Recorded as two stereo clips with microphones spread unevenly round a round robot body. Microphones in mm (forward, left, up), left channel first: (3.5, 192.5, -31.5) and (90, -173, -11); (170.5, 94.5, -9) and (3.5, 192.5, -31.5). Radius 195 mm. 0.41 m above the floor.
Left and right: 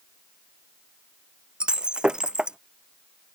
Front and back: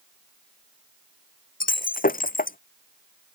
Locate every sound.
1.6 s breaking glass: 10° left